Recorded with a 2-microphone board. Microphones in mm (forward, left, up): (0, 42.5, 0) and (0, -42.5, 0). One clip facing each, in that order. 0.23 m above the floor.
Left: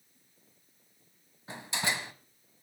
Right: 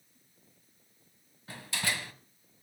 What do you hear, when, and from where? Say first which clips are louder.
1.5 s a door slam: left 2 dB; 20° left (ahead or behind), 1.2 m